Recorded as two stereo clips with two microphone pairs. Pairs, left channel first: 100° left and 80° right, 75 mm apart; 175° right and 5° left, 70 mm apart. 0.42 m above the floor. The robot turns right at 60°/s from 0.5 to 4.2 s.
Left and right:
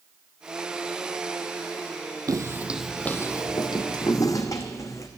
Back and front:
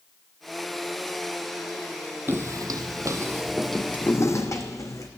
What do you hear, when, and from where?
2.3 s footsteps: 50° right, 0.8 m; by 5.1 s 145° left, 1.8 m